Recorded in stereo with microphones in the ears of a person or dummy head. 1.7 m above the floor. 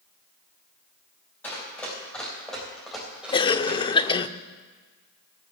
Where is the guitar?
No guitar in this recording.